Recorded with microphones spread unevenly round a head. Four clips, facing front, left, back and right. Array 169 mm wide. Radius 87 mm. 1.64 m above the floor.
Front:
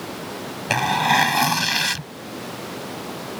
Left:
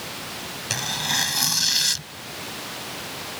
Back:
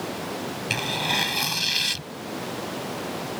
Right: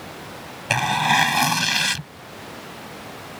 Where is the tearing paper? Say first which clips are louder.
Right 11 dB, front 12 dB; 35° right.